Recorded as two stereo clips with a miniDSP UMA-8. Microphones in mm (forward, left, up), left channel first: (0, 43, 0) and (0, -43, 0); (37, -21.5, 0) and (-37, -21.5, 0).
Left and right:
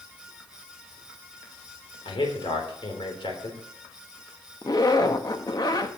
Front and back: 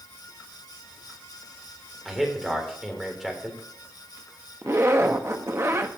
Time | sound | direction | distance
2.0 | a man speaking | 95° left | 3 m
4.6 | a zipper | 130° left | 0.9 m